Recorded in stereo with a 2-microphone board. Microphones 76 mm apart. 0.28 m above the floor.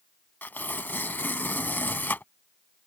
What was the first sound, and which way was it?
Tearing paper, 25° left (ahead or behind).